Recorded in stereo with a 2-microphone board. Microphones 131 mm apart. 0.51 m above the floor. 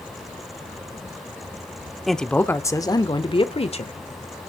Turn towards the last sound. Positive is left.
turn(degrees=50)  # may be behind; listen again after turning